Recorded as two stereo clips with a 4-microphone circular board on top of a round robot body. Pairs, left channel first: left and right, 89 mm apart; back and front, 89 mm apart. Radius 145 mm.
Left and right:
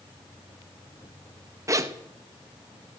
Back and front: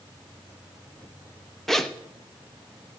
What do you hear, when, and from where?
1.7 s a zipper: 95° right, 1.2 m